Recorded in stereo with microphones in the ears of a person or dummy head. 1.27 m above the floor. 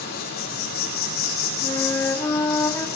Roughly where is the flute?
Centre.